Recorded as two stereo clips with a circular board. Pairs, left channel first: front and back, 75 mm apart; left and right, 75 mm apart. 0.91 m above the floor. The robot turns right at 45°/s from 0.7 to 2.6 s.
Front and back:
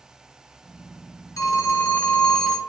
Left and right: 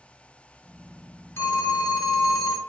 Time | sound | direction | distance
1.4 | a phone ringing | 35° left | 1.0 m